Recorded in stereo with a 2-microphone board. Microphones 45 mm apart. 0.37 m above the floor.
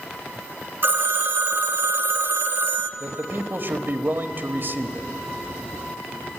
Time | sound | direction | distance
0.8 | a phone ringing | 55° right (ahead or behind) | 1.1 m
3.0 | a man speaking | 50° right (ahead or behind) | 1.3 m